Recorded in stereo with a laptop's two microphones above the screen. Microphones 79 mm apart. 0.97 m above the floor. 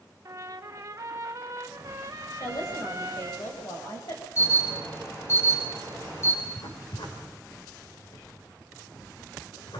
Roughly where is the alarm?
Left.